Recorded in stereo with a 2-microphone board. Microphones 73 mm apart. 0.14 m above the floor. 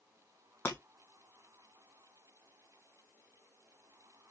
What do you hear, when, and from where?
0.7 s breaking glass: 30° left (ahead or behind), 1.3 m